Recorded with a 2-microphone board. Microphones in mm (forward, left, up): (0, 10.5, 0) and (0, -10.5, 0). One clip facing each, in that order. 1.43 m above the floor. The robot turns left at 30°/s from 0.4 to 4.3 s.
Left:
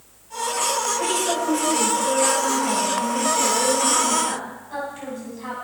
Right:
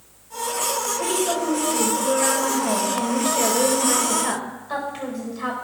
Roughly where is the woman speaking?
Ahead.